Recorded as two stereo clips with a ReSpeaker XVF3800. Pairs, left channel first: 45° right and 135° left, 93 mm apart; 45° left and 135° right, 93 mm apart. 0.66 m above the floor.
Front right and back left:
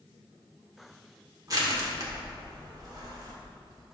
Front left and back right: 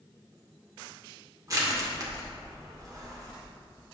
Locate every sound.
1.5 s crushing: straight behind, 1.8 m